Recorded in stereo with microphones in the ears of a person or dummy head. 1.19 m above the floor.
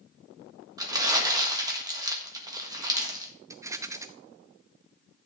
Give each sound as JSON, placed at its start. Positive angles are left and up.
{"t": 0.8, "sound": "crumpling", "side_deg": -20, "distance_m": 1.5}
{"t": 3.5, "sound": "a rattle", "side_deg": -20, "distance_m": 0.7}